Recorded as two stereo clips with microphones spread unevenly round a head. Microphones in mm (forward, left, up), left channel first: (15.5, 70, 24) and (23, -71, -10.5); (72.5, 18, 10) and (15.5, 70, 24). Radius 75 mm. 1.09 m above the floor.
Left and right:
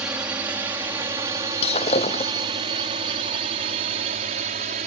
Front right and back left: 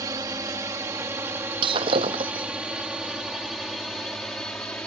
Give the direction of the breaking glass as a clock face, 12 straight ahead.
7 o'clock.